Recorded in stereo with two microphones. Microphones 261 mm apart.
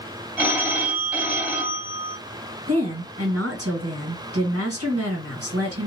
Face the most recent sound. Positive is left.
turn(degrees=-60)  # may be behind; listen again after turning